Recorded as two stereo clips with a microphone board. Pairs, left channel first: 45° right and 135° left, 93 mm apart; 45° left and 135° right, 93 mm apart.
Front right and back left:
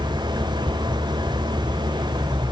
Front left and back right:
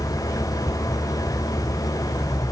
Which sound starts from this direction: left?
An engine running, at 0.0 s.